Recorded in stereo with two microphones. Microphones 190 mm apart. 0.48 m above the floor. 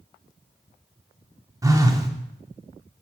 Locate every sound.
1.6 s a phone buzzing: 15° right (ahead or behind), 0.7 m